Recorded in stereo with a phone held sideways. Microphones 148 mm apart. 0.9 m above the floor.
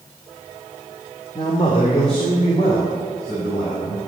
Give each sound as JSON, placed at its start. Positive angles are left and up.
{"t": 1.4, "sound": "a man speaking", "side_deg": 40, "distance_m": 2.0}